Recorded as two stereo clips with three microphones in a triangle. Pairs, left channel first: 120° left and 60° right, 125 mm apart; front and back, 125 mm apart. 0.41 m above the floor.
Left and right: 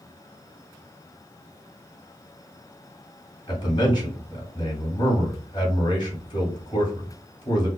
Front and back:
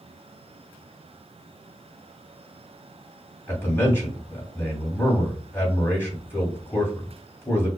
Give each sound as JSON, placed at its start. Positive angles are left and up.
{"t": 3.5, "sound": "a man speaking", "azimuth_deg": 70, "distance_m": 2.5}